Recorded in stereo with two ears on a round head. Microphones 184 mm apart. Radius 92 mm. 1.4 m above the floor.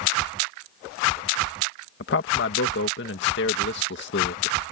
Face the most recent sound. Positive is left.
turn(degrees=55)  # may be behind; listen again after turning